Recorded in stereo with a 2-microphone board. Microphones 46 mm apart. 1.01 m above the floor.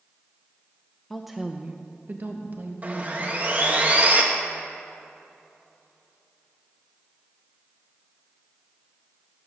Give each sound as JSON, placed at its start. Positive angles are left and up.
{"t": 1.1, "sound": "a woman speaking", "side_deg": 5, "distance_m": 0.7}
{"t": 2.8, "sound": "sawing", "side_deg": -35, "distance_m": 1.3}